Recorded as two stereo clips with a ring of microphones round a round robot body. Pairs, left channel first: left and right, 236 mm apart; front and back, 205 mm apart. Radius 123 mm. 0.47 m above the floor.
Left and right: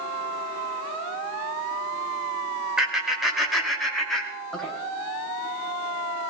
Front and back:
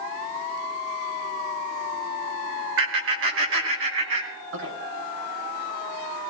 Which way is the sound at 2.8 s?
175° right.